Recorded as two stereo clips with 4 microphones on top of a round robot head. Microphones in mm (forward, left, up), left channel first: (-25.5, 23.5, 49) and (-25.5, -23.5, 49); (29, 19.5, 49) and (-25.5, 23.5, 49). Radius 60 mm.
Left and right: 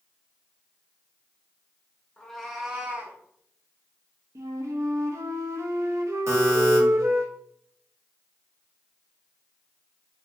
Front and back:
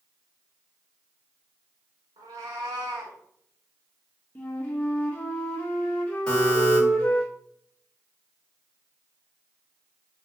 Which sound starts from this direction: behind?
A cat meowing, at 2.2 s.